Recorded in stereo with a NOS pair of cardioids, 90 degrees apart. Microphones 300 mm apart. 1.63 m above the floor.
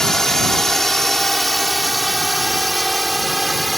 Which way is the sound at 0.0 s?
Straight ahead.